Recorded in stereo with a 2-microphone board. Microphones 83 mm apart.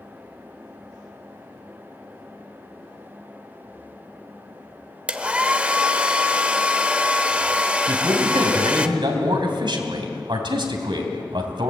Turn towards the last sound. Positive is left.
turn(degrees=-70)  # may be behind; listen again after turning